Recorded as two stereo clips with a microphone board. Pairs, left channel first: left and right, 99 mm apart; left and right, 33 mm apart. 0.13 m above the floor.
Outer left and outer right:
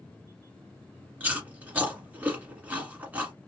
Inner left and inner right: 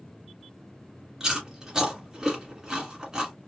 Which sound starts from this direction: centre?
Chewing, at 1.2 s.